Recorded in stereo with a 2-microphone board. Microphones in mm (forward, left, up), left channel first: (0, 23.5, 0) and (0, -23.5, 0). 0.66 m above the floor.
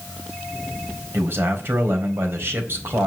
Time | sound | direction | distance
1.1 | a man speaking | 55° right (ahead or behind) | 3.5 m